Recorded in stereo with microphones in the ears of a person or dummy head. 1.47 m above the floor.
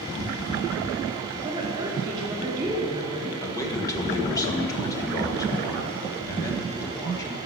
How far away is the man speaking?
About 1.7 m.